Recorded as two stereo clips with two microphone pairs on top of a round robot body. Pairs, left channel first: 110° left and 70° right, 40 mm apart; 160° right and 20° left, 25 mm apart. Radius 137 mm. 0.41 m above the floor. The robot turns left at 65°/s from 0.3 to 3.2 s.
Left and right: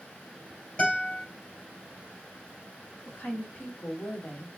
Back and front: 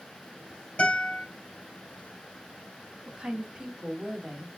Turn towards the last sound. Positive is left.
turn(degrees=60)